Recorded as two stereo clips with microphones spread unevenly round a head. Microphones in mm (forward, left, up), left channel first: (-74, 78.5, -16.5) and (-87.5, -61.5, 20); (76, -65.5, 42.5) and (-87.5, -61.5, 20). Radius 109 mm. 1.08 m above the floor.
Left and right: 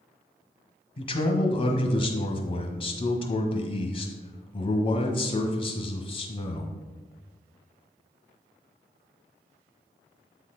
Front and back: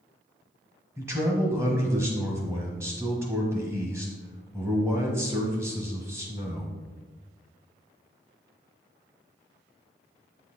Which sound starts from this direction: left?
A man speaking, at 1.0 s.